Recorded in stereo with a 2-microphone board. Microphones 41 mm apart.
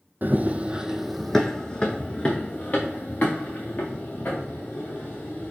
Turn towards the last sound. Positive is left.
turn(degrees=50)  # may be behind; listen again after turning